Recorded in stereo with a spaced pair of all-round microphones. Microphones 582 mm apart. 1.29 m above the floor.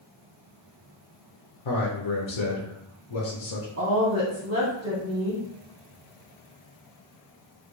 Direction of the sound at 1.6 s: 55° left (ahead or behind).